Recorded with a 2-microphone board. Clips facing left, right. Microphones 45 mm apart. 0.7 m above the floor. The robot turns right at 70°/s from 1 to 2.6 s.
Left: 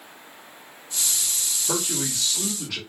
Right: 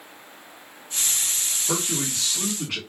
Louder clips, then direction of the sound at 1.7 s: Even; 170° left.